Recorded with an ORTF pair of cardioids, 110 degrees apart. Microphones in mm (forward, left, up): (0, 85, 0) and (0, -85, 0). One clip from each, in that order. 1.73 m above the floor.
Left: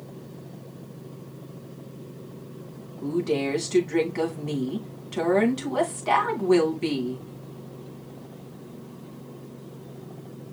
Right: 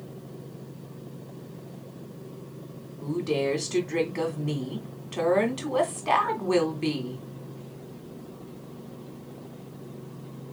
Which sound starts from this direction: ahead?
A woman speaking, at 3.0 s.